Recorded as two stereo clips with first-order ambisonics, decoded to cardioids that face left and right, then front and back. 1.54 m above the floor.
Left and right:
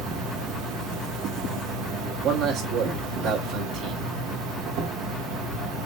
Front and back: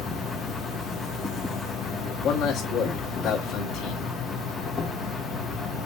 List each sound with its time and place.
0.0 s an insect: 70° right, 1.9 m
2.2 s a man speaking: 50° right, 2 m